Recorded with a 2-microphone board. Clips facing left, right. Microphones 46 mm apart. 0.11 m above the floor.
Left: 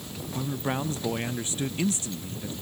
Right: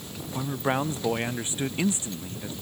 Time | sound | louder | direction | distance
0.3 | a man speaking | right 3 dB | 25° right (ahead or behind) | ?